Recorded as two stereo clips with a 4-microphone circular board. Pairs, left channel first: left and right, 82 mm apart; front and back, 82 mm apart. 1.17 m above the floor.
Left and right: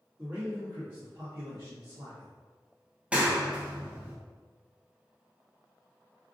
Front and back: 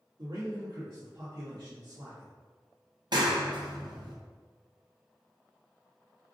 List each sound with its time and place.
0.2 s a man speaking: 160° right, 1.8 m; by 2.3 s 120° right, 0.8 m
3.1 s a clap: 165° right, 0.8 m